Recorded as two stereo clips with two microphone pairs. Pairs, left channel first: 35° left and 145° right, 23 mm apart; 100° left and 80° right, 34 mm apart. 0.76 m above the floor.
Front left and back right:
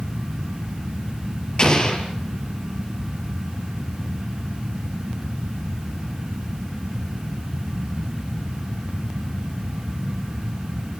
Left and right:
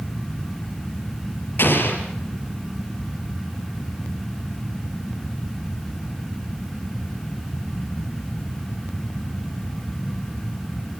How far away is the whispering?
I don't hear whispering.